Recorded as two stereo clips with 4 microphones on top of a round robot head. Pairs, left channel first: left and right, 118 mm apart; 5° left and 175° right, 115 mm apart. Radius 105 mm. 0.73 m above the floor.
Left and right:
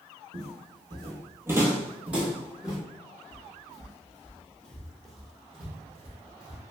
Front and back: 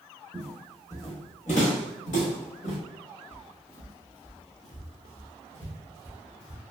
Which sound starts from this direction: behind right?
Footsteps, at 0.3 s.